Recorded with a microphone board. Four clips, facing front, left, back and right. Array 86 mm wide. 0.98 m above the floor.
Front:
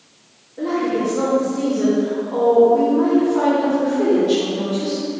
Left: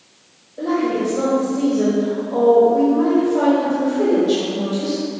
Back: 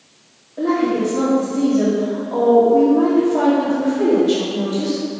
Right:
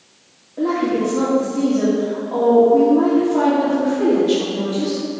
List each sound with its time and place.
0.6 s a woman speaking: 125° right, 2 m